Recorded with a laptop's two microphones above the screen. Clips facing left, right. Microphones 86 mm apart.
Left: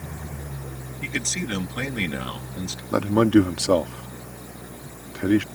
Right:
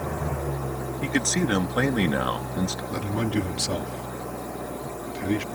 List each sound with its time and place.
0.0 s an engine running: 75° right (ahead or behind)
1.0 s a man speaking: 45° right (ahead or behind)
2.9 s a man speaking: 70° left (ahead or behind)